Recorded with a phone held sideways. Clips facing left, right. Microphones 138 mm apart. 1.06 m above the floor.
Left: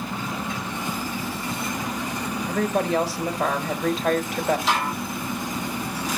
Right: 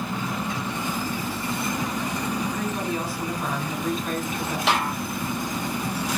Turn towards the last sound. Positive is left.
turn(degrees=-75)  # may be behind; listen again after turning